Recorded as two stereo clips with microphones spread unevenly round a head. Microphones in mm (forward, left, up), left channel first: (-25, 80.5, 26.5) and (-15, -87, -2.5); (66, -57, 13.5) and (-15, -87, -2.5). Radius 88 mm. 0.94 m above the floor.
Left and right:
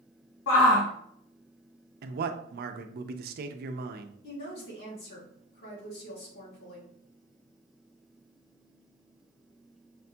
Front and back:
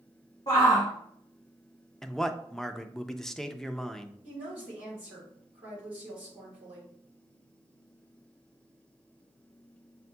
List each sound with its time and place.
0.5 s a shout: 85° left, 0.8 m
2.0 s a man speaking: 70° right, 0.5 m
4.2 s a woman speaking: 120° left, 2 m